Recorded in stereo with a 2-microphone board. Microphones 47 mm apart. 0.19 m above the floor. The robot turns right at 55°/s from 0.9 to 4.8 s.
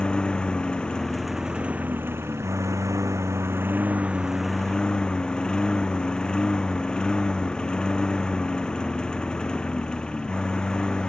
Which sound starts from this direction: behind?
A lawn mower, at 0.0 s.